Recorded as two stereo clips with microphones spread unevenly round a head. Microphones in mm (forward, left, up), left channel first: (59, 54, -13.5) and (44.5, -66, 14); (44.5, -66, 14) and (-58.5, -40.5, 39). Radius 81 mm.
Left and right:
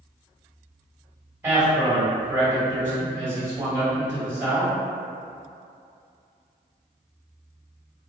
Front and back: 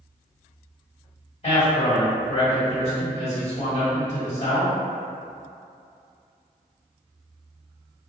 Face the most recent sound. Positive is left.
turn(degrees=-30)